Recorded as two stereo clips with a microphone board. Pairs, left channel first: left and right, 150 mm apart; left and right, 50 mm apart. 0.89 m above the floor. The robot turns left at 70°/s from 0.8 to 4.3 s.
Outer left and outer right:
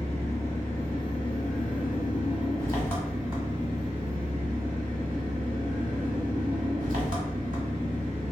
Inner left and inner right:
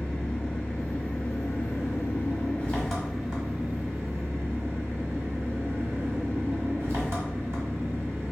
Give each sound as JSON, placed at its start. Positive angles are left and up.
{"t": 0.0, "sound": "an engine running", "azimuth_deg": 160, "distance_m": 1.2}